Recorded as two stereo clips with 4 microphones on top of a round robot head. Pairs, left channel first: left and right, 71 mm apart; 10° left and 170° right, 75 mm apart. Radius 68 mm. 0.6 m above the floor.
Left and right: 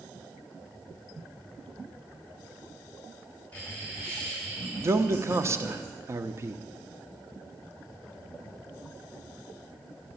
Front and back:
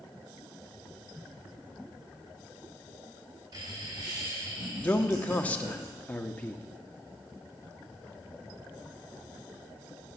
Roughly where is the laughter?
Behind.